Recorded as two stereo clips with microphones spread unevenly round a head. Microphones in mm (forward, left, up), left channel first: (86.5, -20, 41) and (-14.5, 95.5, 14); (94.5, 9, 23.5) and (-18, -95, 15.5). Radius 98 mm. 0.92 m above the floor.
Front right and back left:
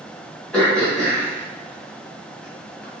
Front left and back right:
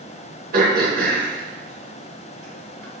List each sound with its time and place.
0.5 s throat clearing: 140° right, 1.7 m